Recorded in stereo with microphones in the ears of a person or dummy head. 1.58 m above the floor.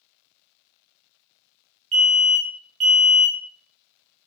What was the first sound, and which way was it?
An alarm, 45° right (ahead or behind).